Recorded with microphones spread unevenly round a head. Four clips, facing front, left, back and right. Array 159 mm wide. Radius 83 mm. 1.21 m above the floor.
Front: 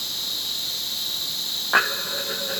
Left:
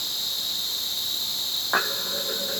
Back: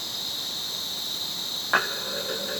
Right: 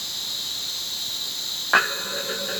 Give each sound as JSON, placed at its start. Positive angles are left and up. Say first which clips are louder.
{"t": 0.0, "sound": "an insect", "louder": "left 1 dB, even", "azimuth_deg": 115, "distance_m": 3.5}